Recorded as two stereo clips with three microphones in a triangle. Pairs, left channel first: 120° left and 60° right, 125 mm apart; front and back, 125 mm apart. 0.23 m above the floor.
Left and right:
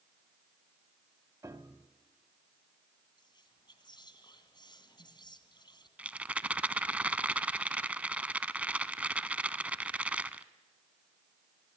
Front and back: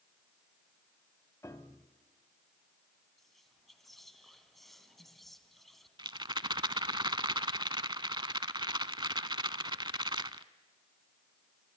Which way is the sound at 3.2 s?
90° left.